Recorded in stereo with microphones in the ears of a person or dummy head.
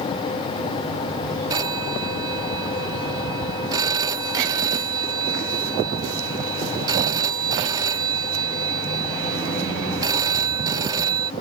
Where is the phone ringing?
25° right (ahead or behind).